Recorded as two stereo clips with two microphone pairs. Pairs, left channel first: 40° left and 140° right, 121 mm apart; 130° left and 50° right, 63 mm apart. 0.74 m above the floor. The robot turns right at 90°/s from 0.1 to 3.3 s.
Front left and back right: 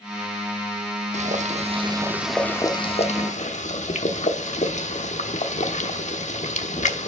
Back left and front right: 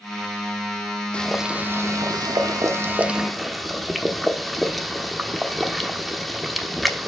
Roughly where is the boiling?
Behind right.